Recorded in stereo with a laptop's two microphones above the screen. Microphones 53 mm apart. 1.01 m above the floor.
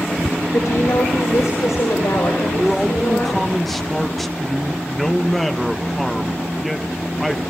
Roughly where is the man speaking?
Centre.